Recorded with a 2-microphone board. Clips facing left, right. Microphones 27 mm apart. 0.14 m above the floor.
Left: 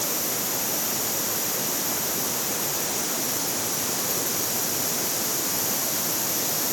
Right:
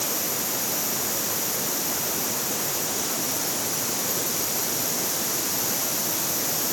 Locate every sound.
Only background noise.